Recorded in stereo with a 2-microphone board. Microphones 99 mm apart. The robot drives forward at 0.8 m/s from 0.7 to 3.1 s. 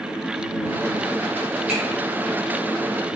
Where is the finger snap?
15° right (ahead or behind), 1.5 m.